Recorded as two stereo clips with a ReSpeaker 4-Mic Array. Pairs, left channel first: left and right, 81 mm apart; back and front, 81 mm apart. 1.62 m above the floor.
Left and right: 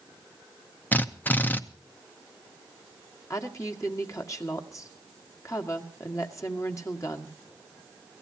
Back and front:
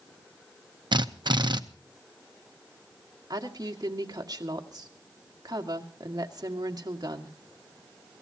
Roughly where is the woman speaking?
Ahead left.